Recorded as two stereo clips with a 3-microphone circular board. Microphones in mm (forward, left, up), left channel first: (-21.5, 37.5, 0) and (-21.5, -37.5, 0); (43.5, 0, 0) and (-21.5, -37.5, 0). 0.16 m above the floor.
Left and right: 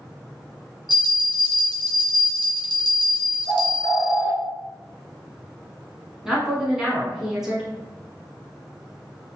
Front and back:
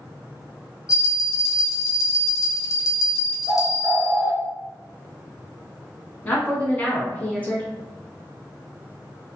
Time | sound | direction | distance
0.9 | a bell | 70° left | 0.9 m
3.5 | a bird | 140° right | 0.5 m
6.2 | a woman speaking | 20° right | 1.1 m